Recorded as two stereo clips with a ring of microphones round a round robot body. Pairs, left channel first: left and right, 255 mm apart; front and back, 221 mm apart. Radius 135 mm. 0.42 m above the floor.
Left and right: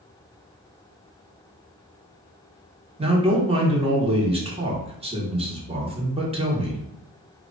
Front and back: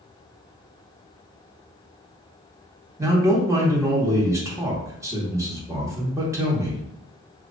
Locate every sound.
3.0 s a man speaking: 120° right, 1.1 m